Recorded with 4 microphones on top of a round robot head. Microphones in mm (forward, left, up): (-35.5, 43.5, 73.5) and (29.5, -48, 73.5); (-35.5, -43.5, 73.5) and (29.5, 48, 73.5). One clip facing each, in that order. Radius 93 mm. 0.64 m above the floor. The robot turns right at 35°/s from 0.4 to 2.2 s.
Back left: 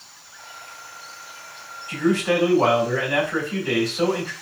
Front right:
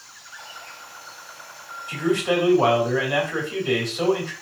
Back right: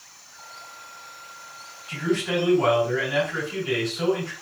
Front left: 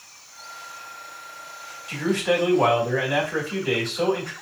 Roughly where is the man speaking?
Ahead.